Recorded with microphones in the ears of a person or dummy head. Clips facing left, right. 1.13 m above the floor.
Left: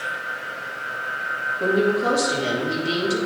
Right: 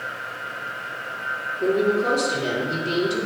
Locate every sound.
1.6 s a woman speaking: 50° left (ahead or behind), 2.5 m